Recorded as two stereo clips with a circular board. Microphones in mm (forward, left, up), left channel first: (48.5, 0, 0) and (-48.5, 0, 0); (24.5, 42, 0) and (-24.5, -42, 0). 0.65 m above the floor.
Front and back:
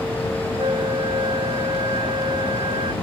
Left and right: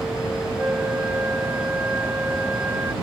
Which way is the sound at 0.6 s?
170° left.